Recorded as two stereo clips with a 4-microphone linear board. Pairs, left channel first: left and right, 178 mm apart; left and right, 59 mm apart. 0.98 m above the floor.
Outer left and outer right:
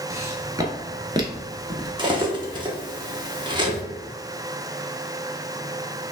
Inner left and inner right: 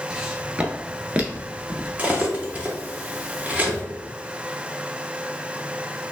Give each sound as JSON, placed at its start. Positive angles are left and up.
{"t": 0.1, "sound": "footsteps", "side_deg": -15, "distance_m": 1.1}
{"t": 2.0, "sound": "cutlery clinking", "side_deg": -25, "distance_m": 0.9}